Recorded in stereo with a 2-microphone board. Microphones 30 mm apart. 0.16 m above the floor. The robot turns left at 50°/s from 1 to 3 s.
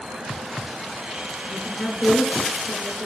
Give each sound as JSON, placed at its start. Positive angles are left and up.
{"t": 1.5, "sound": "a woman speaking", "azimuth_deg": 115, "distance_m": 1.4}